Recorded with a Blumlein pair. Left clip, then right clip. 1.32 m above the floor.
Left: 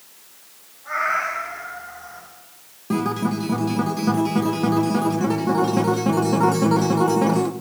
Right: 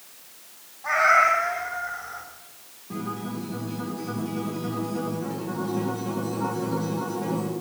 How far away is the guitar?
About 1.0 m.